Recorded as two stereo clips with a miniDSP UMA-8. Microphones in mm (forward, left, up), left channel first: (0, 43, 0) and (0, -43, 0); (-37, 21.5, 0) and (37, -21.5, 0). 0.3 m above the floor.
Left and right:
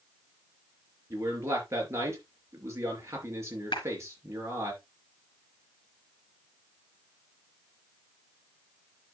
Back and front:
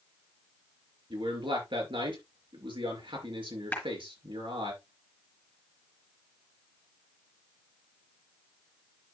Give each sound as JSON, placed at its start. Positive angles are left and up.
{"t": 1.1, "sound": "a man speaking", "azimuth_deg": -35, "distance_m": 4.5}
{"t": 3.7, "sound": "a clap", "azimuth_deg": 80, "distance_m": 4.5}